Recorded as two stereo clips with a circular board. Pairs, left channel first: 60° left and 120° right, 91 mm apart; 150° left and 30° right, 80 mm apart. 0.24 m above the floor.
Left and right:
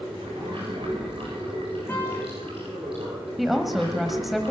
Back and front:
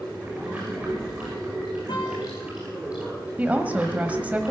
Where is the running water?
100° right, 7.5 m.